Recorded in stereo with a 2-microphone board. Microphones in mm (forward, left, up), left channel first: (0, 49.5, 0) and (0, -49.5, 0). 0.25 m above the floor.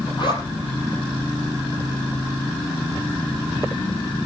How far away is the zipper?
About 6 m.